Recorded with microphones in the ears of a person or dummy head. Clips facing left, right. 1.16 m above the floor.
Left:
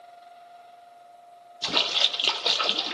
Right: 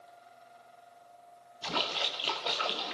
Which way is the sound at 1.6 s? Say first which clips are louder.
Left 3 dB; 70° left (ahead or behind).